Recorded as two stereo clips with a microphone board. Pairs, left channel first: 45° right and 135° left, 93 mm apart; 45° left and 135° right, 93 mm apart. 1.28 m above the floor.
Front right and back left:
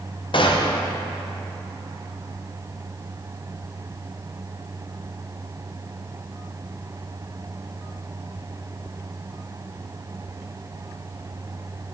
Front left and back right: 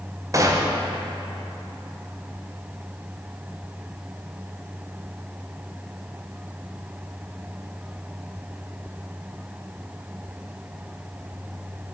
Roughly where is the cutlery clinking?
I don't hear cutlery clinking.